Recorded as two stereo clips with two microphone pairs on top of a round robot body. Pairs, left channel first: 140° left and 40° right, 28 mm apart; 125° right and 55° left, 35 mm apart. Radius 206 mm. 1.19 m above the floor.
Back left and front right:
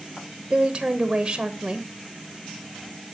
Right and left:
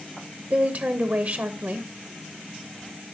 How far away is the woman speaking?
About 1.0 m.